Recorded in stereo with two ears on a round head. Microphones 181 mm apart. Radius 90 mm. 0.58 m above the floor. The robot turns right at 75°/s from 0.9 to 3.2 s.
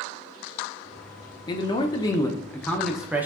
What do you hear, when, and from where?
1.5 s a man speaking: 20° left (ahead or behind), 0.6 m; by 3.2 s 10° right (ahead or behind), 0.6 m